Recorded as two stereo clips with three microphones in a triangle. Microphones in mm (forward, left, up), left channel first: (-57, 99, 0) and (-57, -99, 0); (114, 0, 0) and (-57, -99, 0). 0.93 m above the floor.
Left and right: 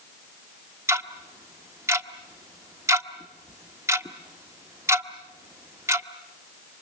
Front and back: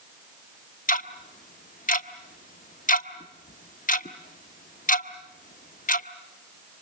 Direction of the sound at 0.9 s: 15° right.